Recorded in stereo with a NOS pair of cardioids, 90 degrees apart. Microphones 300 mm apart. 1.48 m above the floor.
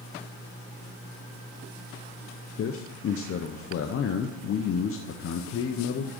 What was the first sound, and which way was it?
A man speaking, 45° left.